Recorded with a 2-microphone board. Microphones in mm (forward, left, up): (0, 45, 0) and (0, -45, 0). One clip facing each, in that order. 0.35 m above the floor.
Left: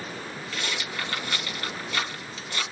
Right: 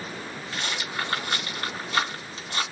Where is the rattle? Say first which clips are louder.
Right 2 dB; 35° right (ahead or behind), 2.0 m.